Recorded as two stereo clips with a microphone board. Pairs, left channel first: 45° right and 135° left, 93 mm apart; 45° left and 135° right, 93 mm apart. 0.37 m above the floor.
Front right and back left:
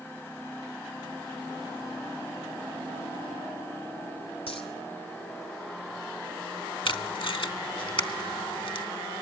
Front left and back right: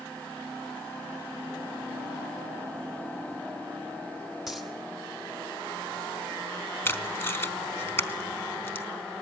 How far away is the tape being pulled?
About 0.9 m.